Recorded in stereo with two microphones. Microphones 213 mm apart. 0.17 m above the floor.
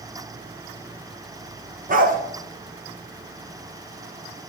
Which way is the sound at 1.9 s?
40° right (ahead or behind).